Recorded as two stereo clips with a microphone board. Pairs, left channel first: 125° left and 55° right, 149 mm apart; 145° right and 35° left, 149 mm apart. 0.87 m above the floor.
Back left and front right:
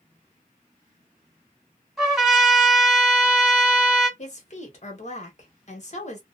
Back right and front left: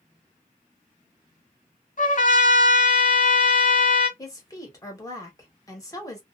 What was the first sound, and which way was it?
A trumpet, 140° right.